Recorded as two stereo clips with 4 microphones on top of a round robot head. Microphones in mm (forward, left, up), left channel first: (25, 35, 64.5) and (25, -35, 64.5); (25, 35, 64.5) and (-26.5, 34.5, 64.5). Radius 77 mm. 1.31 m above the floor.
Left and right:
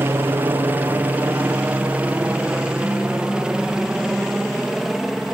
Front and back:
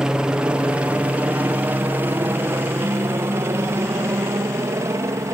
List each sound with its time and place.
0.0 s a helicopter: 115° right; by 5.3 s 175° right